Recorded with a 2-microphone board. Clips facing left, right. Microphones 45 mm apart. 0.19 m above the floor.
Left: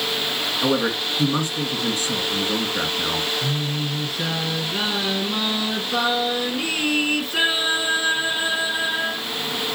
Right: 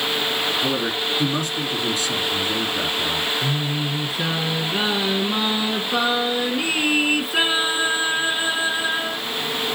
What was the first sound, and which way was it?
A man speaking, 35° left (ahead or behind).